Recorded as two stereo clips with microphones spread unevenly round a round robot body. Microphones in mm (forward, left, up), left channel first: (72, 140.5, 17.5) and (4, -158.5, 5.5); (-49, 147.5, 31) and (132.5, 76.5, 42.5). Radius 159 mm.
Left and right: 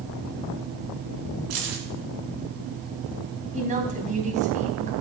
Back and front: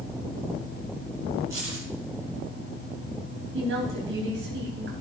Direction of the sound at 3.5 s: 40° right.